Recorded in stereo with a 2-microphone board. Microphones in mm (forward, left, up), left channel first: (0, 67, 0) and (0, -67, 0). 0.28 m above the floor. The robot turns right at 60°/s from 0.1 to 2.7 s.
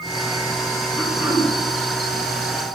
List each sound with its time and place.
1.0 s throat clearing: straight behind, 2.5 m; by 1.5 s 150° right, 2.5 m